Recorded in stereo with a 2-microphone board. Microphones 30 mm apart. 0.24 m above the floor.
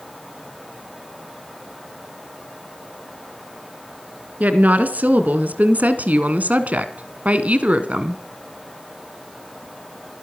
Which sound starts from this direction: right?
A woman speaking, at 4.4 s.